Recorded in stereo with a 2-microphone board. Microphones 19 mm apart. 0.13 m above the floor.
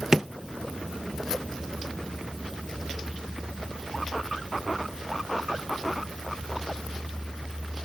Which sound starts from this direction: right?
A drawer, at 0.1 s.